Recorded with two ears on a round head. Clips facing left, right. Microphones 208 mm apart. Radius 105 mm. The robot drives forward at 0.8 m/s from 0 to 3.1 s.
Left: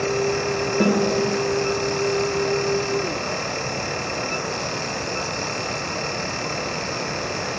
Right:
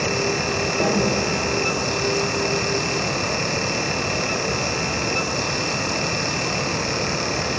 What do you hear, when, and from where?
0.8 s a snare drum: 20° left (ahead or behind), 2.5 m